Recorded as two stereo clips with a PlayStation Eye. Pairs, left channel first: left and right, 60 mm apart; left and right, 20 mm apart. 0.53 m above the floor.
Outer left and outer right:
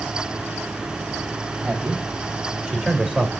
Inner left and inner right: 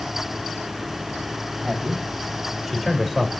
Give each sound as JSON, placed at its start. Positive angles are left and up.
{"t": 1.6, "sound": "a man speaking", "side_deg": -15, "distance_m": 3.5}